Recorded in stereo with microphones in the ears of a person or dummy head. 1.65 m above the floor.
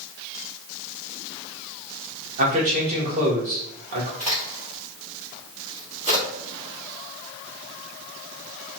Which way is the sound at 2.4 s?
40° right (ahead or behind).